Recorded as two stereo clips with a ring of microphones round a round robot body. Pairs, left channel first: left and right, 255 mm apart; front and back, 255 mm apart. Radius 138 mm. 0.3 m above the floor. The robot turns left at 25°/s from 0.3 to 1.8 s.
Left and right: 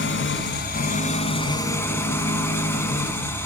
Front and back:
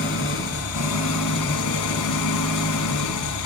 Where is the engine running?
45° left, 1.3 m; by 3.5 s 10° left, 1.3 m.